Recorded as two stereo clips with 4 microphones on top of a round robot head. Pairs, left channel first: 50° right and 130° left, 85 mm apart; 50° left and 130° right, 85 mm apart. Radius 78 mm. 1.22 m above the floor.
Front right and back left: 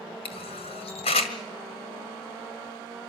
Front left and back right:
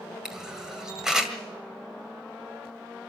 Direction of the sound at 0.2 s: 50° right.